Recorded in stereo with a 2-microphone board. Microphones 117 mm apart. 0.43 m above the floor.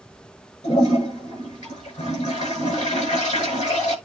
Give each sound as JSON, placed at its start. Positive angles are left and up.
{"t": 0.6, "sound": "a toilet flushing", "side_deg": 80, "distance_m": 7.0}